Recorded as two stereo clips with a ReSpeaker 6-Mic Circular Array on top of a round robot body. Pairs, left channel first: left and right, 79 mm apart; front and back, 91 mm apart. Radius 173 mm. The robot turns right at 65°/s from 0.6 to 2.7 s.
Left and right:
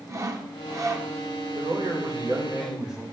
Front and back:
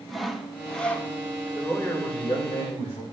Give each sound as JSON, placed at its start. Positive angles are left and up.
{"t": 0.1, "sound": "sawing", "azimuth_deg": -90, "distance_m": 1.1}
{"t": 1.6, "sound": "a man speaking", "azimuth_deg": -80, "distance_m": 2.5}